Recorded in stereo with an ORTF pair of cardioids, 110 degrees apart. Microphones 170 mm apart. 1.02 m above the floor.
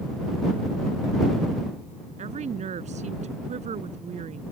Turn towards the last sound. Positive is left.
turn(degrees=-45)